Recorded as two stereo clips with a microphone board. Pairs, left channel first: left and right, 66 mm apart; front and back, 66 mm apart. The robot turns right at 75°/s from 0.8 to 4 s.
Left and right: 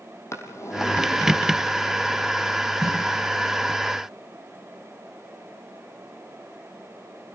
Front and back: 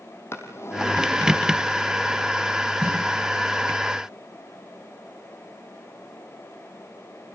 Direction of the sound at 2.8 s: 120° right.